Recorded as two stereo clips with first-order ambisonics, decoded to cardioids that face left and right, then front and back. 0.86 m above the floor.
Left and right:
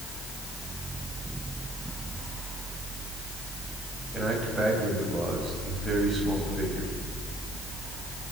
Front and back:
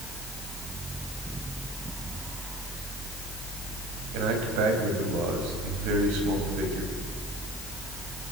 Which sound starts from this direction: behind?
A man speaking, at 4.1 s.